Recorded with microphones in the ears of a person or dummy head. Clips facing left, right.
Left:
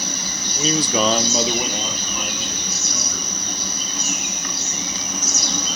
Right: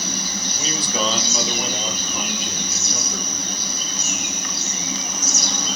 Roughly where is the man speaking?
Left.